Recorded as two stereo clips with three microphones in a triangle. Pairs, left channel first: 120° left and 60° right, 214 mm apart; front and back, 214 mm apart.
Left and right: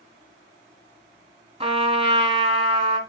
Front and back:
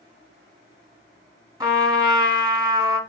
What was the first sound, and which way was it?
A trumpet, 110° right.